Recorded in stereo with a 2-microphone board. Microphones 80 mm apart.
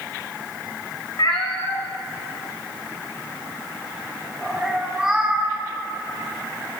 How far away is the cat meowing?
About 1.5 m.